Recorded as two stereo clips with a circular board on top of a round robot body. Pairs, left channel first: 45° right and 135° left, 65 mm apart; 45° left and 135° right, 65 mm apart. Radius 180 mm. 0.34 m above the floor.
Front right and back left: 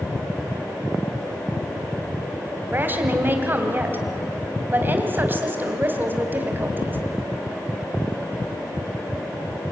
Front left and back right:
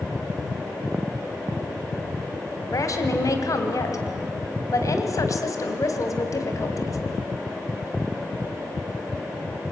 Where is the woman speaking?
75° left, 3 m.